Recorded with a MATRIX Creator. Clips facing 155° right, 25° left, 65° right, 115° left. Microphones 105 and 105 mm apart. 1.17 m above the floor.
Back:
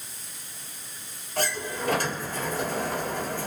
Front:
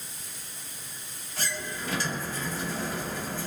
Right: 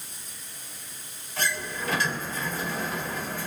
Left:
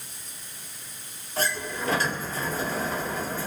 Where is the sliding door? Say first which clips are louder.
Back 6 dB, left 2 dB; 165° left, 1.9 m.